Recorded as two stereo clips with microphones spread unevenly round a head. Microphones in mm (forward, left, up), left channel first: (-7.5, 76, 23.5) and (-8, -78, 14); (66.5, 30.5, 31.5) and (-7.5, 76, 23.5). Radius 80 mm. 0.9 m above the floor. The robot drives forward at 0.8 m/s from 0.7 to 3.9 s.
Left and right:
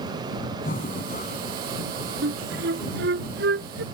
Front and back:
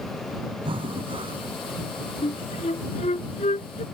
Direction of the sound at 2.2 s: 65° right.